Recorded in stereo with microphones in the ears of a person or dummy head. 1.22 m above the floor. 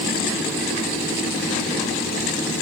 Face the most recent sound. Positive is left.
No sound to turn to.